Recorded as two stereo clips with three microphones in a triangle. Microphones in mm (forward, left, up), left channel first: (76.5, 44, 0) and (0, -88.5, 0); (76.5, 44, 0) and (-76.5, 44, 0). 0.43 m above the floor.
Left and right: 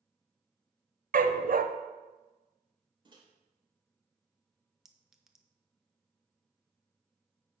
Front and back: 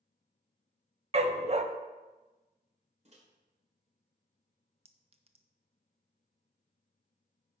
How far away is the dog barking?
About 0.6 m.